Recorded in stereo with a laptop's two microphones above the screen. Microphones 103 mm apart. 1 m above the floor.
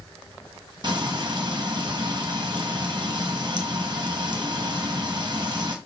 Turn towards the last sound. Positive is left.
turn(degrees=-45)  # may be behind; listen again after turning